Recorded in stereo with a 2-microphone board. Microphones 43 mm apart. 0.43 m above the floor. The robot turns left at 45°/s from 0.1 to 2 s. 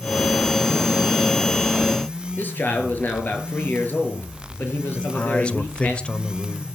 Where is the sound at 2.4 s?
45° left (ahead or behind), 6 m.